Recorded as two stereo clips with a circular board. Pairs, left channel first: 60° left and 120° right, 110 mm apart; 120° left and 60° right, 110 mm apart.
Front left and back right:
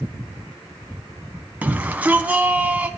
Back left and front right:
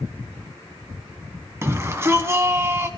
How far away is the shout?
About 1.1 m.